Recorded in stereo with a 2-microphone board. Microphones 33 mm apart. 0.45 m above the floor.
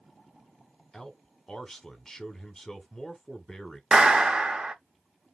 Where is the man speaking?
15° left (ahead or behind), 1.2 m.